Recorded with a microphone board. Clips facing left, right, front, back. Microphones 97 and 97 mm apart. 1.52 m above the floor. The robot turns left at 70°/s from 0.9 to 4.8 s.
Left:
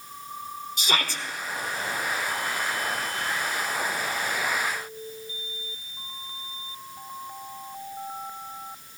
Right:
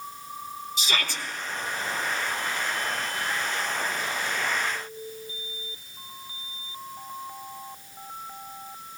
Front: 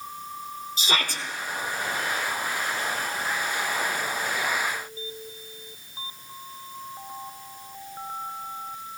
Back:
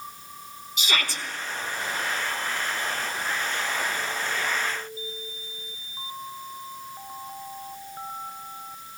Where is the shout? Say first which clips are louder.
Left 2 dB, front 1 dB; 55° left, 1.9 m; by 1.2 s 30° left, 1.9 m.